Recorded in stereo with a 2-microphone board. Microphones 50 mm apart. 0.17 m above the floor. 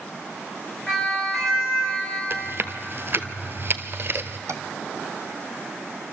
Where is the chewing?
50° right (ahead or behind), 1.0 m.